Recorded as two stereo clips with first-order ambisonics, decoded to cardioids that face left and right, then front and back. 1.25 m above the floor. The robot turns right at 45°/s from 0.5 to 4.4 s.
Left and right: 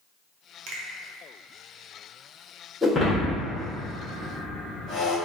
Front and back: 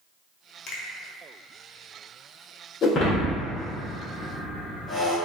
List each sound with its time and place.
0.7 s a finger snap: 50° right, 0.6 m; by 0.8 s 45° right, 0.6 m
2.8 s breaking glass: straight ahead, 0.7 m; by 5.2 s 75° left, 0.7 m